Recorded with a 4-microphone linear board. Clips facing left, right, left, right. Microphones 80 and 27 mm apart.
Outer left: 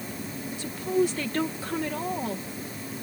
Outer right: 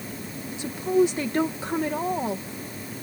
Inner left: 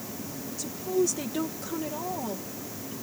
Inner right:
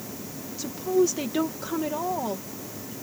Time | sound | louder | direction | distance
0.6 | a woman speaking | outer right 4 dB, inner right 4 dB | 20° right (ahead or behind) | ?